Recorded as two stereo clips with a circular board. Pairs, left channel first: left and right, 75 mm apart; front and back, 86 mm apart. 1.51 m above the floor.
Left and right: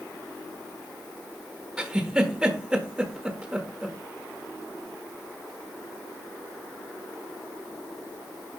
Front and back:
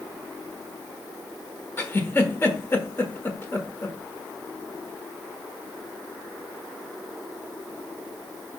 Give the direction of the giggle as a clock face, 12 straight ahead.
1 o'clock.